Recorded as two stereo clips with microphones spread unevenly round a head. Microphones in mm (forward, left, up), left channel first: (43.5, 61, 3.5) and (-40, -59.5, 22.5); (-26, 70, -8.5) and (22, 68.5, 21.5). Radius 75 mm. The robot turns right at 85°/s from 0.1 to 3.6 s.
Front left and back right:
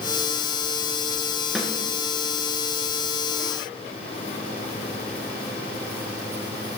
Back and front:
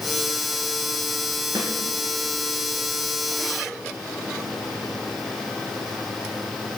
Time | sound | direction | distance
1.6 | a snare drum | 40° right | 3.5 m